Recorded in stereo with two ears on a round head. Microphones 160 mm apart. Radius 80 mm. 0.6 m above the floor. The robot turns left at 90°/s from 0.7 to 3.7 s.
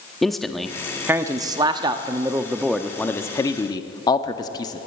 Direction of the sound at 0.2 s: Centre (ahead or behind).